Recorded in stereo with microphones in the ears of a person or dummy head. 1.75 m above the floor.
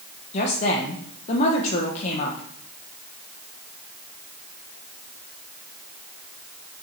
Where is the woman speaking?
40° left (ahead or behind), 1.3 m.